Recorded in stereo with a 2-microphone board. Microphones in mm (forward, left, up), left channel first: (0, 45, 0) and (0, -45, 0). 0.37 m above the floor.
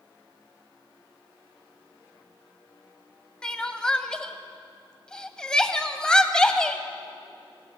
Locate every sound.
3.4 s crying: 10° left (ahead or behind), 0.6 m